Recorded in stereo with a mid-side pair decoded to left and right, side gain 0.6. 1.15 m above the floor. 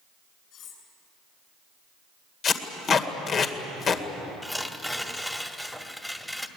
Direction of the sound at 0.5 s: 55° left.